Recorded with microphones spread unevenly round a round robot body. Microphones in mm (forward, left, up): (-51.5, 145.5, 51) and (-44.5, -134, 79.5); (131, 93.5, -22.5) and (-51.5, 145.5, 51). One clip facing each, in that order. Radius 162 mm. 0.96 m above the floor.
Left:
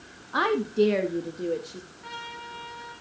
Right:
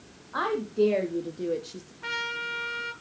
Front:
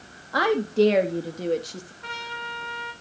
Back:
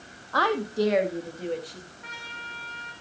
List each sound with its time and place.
0.3 s a woman speaking: 50° left, 1.8 m; by 1.9 s 20° right, 1.8 m
2.0 s a trumpet: 70° right, 2.5 m